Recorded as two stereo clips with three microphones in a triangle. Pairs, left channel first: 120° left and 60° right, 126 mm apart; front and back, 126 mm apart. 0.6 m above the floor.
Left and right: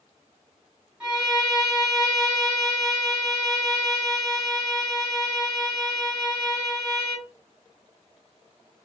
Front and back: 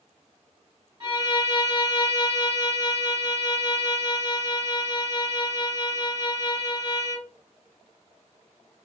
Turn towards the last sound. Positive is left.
turn(degrees=-130)